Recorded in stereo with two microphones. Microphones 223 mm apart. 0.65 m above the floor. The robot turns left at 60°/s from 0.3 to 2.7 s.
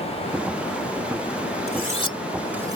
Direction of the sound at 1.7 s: 45° left (ahead or behind).